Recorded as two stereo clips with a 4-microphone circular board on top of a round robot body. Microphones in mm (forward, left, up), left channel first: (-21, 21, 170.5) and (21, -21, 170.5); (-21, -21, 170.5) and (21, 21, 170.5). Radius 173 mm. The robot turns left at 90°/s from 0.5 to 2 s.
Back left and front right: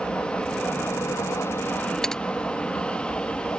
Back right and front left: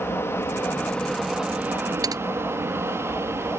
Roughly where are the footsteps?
I don't hear footsteps.